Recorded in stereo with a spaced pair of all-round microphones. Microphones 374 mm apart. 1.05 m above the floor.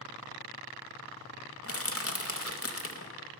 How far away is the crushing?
About 0.7 m.